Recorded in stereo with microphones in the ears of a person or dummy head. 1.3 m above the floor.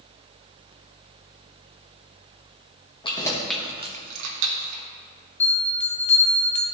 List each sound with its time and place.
3.0 s keys jangling: 30° left (ahead or behind), 1.1 m; by 4.8 s 80° right, 1.3 m
5.4 s a bell: 35° left (ahead or behind), 0.6 m